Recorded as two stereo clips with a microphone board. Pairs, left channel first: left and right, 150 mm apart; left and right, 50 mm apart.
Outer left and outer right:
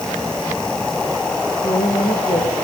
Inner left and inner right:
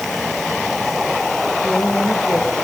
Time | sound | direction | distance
1.6 | a woman speaking | 35° left (ahead or behind) | 3.5 m